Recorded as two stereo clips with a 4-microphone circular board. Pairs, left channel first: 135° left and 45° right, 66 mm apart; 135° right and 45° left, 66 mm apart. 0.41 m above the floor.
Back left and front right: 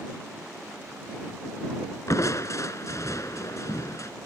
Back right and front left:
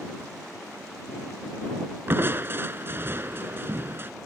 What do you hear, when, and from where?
2.1 s crushing: 100° left